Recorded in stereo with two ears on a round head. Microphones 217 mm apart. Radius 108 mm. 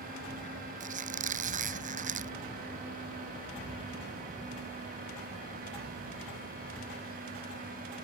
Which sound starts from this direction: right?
A squeak, at 0.8 s.